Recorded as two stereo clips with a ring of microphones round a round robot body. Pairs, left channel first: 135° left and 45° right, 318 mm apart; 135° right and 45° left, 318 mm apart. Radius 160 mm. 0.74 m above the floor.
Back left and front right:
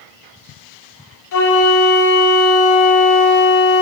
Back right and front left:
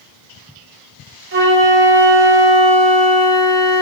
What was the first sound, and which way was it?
A flute, 100° left.